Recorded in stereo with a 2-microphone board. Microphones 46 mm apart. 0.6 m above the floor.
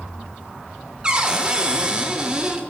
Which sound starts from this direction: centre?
A cupboard door, at 1.0 s.